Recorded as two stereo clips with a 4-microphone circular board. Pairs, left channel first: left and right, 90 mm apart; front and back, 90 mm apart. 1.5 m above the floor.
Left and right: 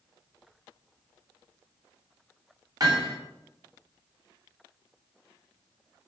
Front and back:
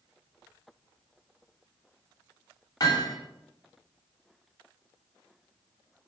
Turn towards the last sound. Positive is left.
turn(degrees=-50)